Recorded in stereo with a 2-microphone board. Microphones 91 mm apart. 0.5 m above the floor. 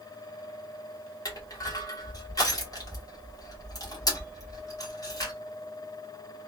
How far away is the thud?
I don't hear a thud.